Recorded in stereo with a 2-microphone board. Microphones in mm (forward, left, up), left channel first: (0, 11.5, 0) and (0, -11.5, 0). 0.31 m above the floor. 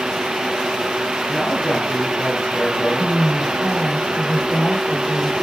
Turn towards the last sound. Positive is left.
turn(degrees=50)  # may be behind; listen again after turning